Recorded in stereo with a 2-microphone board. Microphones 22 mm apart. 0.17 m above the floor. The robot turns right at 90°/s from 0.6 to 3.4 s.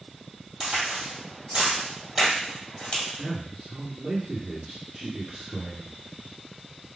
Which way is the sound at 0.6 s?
30° right (ahead or behind).